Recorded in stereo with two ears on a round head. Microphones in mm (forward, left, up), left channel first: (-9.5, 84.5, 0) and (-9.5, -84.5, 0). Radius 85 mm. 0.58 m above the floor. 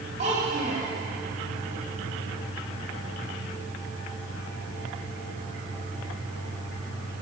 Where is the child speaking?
45° right (ahead or behind), 2 m.